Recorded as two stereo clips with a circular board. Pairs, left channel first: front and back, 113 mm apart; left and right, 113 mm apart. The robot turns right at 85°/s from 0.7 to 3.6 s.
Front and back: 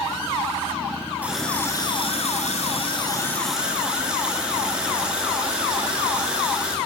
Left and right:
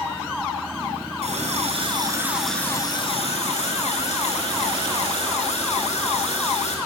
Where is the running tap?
105° right, 3 m; by 6.8 s 100° left, 3 m.